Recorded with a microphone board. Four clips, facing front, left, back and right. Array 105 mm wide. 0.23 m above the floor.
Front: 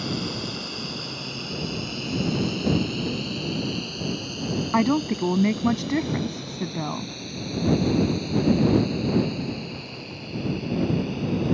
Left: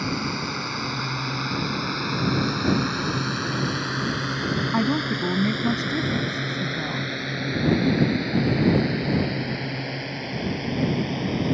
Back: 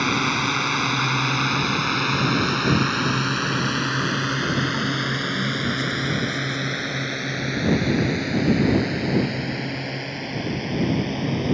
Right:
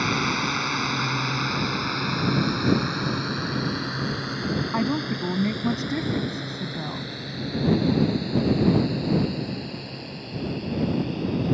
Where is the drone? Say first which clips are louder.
Right 3 dB, back 7 dB; 155° right; by 11.5 s 140° left.